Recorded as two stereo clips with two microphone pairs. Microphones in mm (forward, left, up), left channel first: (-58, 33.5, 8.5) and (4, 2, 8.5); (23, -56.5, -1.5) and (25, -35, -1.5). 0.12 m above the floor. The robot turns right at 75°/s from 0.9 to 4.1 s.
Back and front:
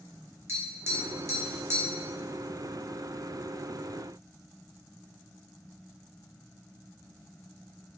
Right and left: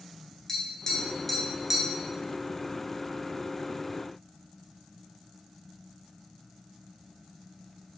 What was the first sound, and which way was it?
Tapping, 55° right.